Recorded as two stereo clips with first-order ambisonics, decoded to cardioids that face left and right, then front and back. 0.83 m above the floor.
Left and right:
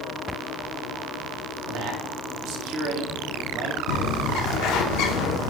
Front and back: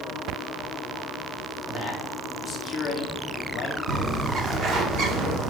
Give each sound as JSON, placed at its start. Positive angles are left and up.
{"t": 1.7, "sound": "a man speaking", "azimuth_deg": -95, "distance_m": 1.8}
{"t": 3.9, "sound": "a bird", "azimuth_deg": 125, "distance_m": 1.0}